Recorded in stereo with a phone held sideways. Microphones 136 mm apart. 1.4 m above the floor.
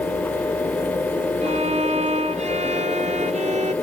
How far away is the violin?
About 0.5 m.